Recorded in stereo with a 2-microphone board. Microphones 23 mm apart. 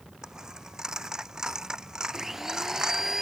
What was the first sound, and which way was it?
A dropped coin, 25° right (ahead or behind).